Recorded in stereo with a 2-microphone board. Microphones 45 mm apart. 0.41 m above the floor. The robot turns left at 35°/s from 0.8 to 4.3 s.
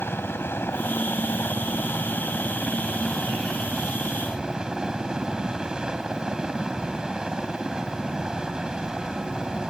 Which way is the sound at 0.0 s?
100° left.